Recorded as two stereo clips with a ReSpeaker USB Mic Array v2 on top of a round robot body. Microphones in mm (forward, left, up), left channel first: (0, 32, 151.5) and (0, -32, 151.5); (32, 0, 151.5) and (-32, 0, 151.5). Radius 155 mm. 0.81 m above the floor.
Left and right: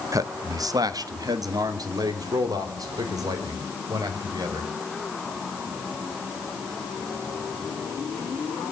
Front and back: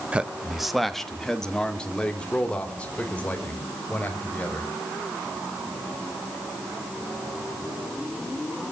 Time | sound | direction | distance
0.1 | a man speaking | 110° right | 1.1 m